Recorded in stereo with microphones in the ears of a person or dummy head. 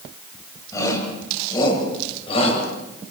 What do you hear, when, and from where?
0.7 s a shout: 20° left (ahead or behind), 8 m; by 2.6 s 35° left (ahead or behind), 7.5 m